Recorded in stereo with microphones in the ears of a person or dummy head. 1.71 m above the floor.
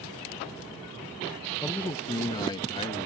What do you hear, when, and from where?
1.6 s a man speaking: 10° left (ahead or behind); by 3.1 s 35° left (ahead or behind)